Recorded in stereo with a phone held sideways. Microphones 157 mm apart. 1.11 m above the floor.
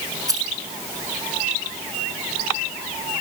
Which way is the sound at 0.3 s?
25° right (ahead or behind).